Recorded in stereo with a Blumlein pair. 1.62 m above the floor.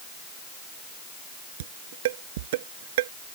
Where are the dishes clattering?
55° right.